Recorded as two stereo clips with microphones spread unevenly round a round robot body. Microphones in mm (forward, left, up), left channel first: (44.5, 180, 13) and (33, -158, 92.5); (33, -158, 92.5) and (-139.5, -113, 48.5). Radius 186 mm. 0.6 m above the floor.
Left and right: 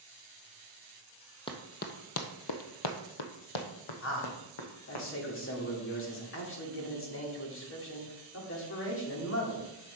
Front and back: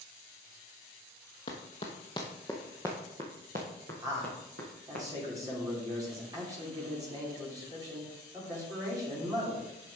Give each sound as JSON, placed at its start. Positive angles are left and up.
{"t": 1.5, "sound": "running footsteps", "azimuth_deg": 5, "distance_m": 1.0}
{"t": 4.0, "sound": "a man speaking", "azimuth_deg": 110, "distance_m": 2.0}